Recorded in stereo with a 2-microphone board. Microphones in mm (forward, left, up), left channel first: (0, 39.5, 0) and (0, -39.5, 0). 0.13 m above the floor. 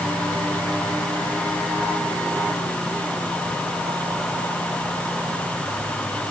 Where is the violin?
I don't hear a violin.